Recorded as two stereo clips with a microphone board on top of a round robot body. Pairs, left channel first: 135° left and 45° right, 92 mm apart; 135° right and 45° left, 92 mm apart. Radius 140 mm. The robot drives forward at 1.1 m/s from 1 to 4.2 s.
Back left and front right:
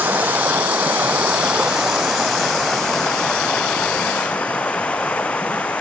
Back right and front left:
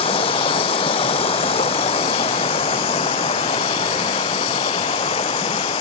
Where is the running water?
115° right; by 5.8 s 145° right.